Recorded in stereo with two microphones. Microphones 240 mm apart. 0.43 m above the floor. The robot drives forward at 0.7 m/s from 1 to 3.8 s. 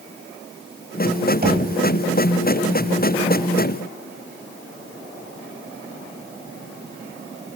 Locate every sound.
1.4 s knocking: 40° right (ahead or behind), 2.5 m; by 1.7 s 45° right (ahead or behind), 2 m